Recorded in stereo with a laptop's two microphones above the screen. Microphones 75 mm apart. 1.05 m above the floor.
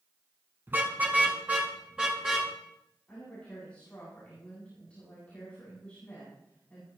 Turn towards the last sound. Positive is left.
turn(degrees=20)  # may be behind; listen again after turning